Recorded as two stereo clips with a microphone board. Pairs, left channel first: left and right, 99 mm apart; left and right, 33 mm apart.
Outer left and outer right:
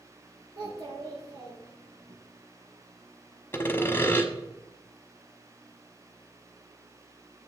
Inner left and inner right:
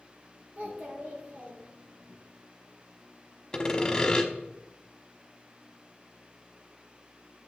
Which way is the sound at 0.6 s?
65° right (ahead or behind).